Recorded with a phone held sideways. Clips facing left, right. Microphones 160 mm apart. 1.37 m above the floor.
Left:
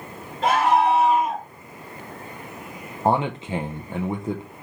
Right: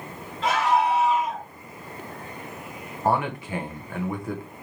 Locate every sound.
0.4 s a scream: 50° left (ahead or behind), 3 m
3.0 s a man speaking: 20° left (ahead or behind), 0.5 m